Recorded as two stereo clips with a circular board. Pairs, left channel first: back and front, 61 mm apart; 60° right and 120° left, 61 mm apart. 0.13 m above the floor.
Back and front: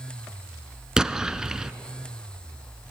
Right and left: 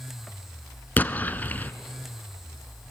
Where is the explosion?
70° right, 0.6 m.